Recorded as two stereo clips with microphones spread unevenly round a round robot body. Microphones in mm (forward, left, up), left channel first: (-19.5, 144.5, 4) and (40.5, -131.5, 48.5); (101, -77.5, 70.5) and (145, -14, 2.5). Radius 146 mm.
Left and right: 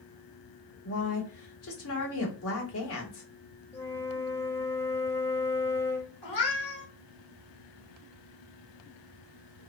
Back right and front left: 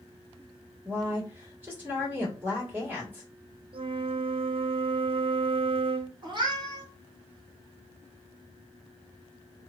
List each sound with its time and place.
0.8 s a woman speaking: 85° left, 1.4 m
3.7 s a flute: 20° left, 0.5 m
6.2 s a cat meowing: 95° left, 1.6 m